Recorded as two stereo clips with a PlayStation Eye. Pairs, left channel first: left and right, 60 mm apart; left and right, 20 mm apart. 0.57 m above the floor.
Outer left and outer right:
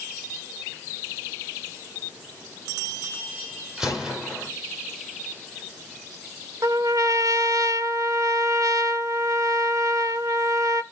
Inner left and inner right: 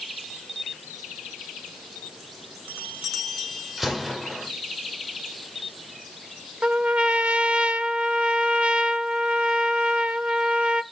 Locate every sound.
3.8 s a gunshot: 15° right (ahead or behind), 3 m
6.6 s a trumpet: 70° right (ahead or behind), 0.8 m